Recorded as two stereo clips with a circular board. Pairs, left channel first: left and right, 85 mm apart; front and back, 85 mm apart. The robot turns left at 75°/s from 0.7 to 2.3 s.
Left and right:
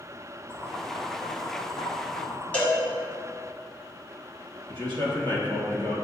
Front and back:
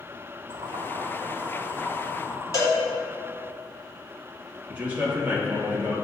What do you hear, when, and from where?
0.5 s boiling: 165° left, 1.3 m; by 2.4 s 45° left, 1.3 m
2.5 s a cowbell: 25° left, 1.7 m
4.7 s a man speaking: 110° right, 1.8 m